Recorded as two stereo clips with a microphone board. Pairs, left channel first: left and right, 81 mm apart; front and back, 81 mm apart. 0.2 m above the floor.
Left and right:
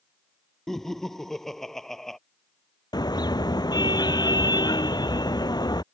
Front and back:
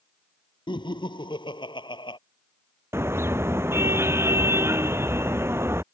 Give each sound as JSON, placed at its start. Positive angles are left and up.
{"t": 0.7, "sound": "laughter", "azimuth_deg": 5}
{"t": 2.9, "sound": "a car horn", "azimuth_deg": 120}